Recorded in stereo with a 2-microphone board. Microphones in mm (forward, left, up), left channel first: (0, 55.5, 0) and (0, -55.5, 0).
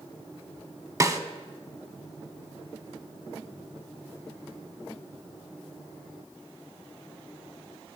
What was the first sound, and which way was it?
A snare drum, 30° right (ahead or behind).